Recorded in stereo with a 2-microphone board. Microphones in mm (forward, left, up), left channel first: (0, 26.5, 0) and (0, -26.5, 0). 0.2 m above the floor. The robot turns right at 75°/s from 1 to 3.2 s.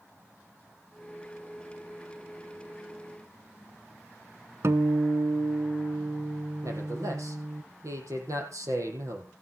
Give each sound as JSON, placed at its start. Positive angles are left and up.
{"t": 4.6, "sound": "a guitar", "side_deg": -60, "distance_m": 0.8}
{"t": 6.6, "sound": "a man speaking", "side_deg": -75, "distance_m": 5.5}